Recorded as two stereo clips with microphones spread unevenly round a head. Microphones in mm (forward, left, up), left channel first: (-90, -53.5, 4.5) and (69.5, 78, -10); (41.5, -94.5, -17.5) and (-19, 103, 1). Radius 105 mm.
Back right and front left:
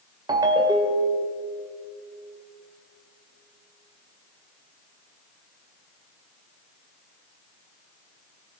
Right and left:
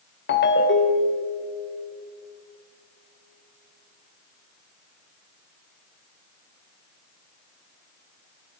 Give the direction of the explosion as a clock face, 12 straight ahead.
No explosion in this recording.